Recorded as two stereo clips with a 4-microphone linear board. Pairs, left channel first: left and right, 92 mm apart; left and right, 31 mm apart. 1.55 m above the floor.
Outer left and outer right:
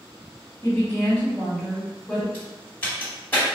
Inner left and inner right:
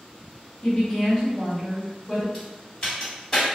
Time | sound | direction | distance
0.6 | a woman speaking | 30° left (ahead or behind) | 1.2 m
2.3 | a crack | 20° left (ahead or behind) | 1.7 m